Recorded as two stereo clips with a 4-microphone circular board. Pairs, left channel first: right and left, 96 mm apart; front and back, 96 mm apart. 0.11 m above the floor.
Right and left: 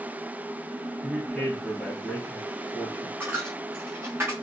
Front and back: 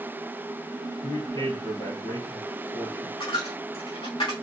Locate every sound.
1.0 s a man speaking: 5° right, 1.9 m
3.2 s a dropped coin: 25° left, 1.0 m